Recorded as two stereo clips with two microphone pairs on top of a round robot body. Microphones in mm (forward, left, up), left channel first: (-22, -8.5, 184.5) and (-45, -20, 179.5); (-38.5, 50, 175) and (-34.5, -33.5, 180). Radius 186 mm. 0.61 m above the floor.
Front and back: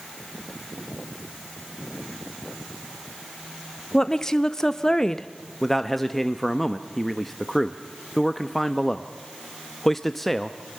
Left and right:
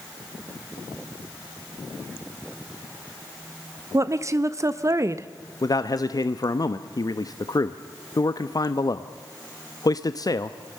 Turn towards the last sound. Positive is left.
turn(degrees=120)